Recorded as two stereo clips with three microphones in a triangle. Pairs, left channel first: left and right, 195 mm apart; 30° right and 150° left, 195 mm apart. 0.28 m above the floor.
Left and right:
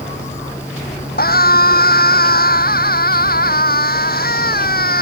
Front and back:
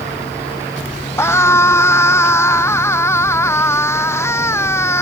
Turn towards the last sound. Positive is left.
turn(degrees=50)